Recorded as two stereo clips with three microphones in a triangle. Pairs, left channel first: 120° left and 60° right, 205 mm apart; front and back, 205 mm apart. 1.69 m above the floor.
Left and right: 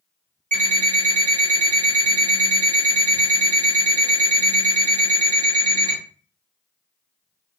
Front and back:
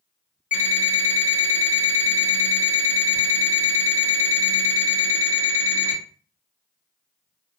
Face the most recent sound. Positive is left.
turn(degrees=-25)